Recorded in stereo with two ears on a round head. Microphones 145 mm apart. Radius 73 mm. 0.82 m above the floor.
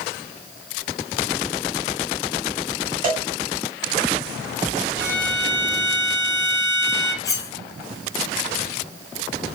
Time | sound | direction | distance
3.0 | a cowbell | 50° right (ahead or behind) | 1.7 m
5.0 | a violin | 70° right (ahead or behind) | 2 m
7.2 | cutlery clinking | 20° left (ahead or behind) | 0.6 m